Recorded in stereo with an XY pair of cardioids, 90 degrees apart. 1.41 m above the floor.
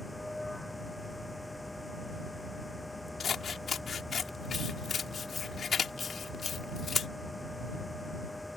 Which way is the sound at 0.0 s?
10° left.